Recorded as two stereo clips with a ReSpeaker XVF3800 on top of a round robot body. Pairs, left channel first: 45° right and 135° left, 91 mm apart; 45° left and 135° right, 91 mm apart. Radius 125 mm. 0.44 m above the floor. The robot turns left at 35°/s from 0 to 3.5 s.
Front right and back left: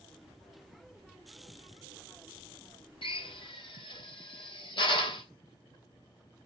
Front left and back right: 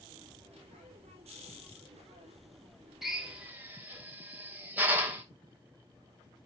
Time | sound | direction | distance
3.0 | a drill | 50° right | 3 m